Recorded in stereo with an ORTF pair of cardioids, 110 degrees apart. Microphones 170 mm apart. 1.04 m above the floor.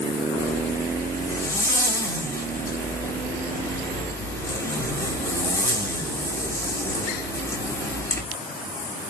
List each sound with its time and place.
0.4 s a zipper: 15° left, 3.5 m